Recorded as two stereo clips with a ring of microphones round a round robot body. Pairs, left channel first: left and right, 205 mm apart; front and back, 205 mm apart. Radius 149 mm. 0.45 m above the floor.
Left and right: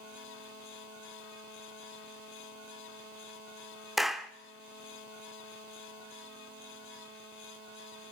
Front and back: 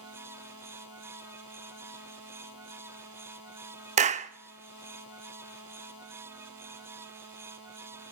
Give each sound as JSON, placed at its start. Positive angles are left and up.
{"t": 4.0, "sound": "a clap", "azimuth_deg": 180, "distance_m": 0.6}